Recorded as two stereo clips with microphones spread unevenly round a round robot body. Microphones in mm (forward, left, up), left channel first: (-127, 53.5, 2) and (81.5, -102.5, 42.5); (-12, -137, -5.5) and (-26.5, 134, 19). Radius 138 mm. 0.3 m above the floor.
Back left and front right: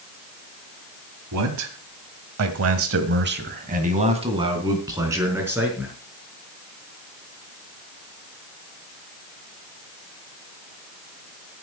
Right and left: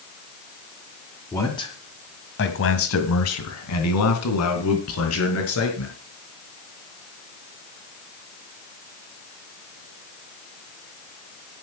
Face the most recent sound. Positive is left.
turn(degrees=-125)